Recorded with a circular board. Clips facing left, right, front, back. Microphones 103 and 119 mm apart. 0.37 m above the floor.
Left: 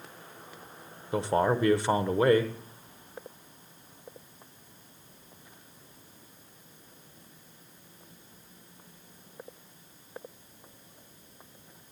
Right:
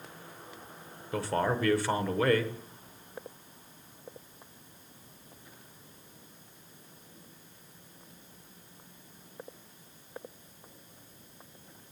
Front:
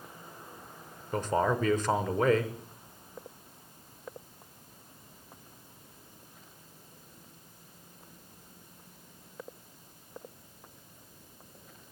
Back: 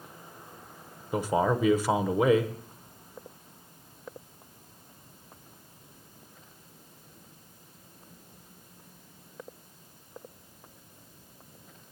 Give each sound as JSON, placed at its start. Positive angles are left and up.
{"t": 1.1, "sound": "a man speaking", "azimuth_deg": 115, "distance_m": 0.8}